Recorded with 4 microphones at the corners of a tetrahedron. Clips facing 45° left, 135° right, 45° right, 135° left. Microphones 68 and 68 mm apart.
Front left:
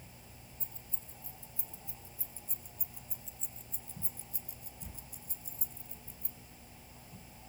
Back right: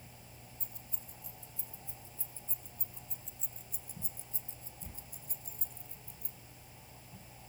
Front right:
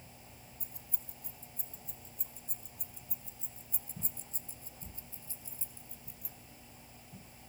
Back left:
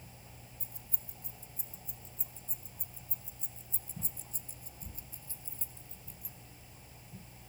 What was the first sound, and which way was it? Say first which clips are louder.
Keys jangling: even, even; 15° right.